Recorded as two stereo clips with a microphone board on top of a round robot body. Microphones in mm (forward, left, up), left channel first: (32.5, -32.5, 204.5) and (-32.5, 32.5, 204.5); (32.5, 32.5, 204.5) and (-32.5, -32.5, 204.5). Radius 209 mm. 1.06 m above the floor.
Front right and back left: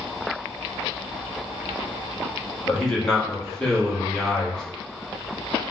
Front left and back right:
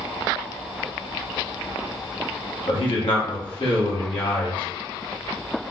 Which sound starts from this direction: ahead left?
A man speaking, at 2.7 s.